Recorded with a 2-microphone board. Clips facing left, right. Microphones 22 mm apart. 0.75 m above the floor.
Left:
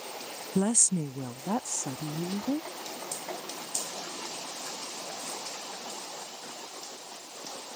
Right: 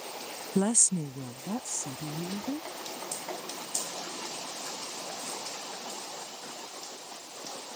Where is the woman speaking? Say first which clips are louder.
Even; 10° right (ahead or behind); by 2.7 s 55° left (ahead or behind).